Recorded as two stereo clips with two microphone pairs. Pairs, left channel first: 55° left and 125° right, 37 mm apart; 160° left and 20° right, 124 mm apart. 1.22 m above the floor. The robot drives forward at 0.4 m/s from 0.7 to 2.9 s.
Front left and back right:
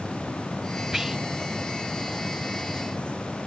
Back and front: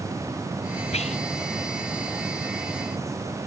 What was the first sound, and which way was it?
Whispering, 155° left.